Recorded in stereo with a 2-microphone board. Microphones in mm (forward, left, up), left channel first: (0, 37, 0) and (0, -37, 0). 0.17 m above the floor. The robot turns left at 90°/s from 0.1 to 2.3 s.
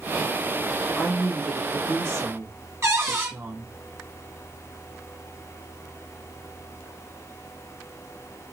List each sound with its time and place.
1.0 s a woman speaking: 45° left, 1.5 m; by 3.7 s 80° right, 1.5 m
2.8 s a cupboard door: 40° right (ahead or behind), 1.3 m